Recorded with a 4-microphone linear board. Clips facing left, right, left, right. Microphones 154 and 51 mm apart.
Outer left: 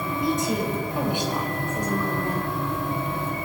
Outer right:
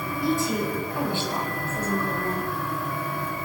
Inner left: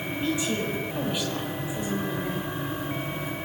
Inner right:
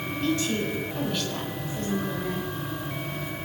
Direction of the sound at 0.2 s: 20° left (ahead or behind).